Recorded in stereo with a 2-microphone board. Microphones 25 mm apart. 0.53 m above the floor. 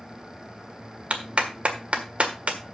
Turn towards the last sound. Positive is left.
turn(degrees=-55)  # may be behind; listen again after turning